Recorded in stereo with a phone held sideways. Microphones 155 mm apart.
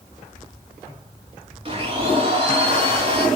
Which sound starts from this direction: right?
A blender, at 1.6 s.